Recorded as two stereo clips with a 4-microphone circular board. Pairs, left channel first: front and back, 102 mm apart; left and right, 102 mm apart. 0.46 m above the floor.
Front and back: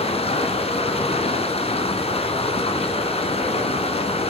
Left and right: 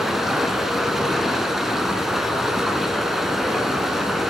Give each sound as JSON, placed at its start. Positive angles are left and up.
{"t": 0.0, "sound": "running water", "azimuth_deg": -5, "distance_m": 1.2}